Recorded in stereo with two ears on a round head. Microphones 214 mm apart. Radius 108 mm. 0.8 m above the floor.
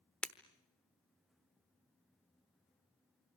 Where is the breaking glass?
5° left (ahead or behind), 1.0 m.